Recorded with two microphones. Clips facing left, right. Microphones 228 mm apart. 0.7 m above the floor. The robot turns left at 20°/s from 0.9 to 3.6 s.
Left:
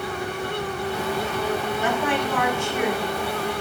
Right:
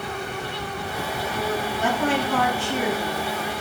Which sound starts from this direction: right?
A woman speaking, at 1.8 s.